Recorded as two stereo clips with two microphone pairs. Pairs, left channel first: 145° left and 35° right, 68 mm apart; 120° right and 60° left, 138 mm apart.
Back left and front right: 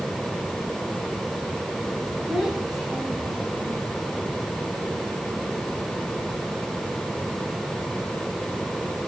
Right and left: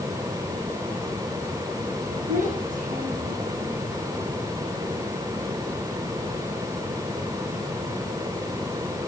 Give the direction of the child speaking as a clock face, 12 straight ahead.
10 o'clock.